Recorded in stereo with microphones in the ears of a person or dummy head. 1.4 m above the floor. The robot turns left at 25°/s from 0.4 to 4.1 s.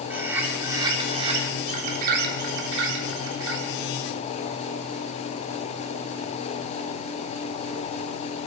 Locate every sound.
0.1 s a bird: 10° right, 3 m; by 3.7 s 95° right, 3 m